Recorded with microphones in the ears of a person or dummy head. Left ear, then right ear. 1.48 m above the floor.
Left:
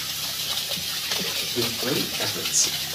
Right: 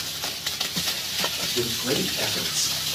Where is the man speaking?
65° left (ahead or behind), 3 m; by 3.0 s 85° left, 1.3 m.